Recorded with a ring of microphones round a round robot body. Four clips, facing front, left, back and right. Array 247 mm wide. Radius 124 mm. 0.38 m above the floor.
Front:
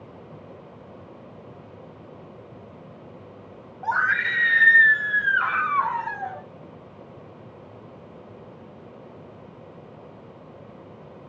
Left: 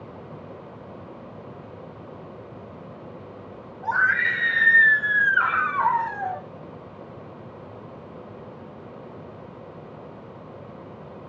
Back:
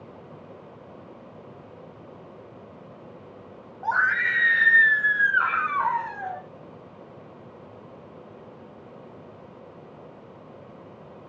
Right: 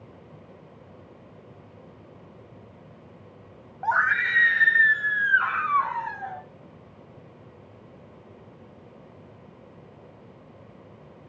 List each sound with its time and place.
3.8 s a scream: 110° right, 1.4 m; by 6.4 s 105° left, 1.9 m